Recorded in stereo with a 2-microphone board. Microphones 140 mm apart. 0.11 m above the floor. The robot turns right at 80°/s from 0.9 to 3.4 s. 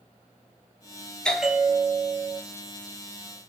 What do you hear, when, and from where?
1.2 s a bell: 170° left, 0.7 m; by 2.4 s 95° right, 0.7 m